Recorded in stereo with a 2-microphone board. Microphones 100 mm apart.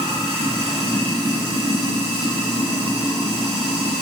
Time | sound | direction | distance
0.0 | running water | 80° right | 0.8 m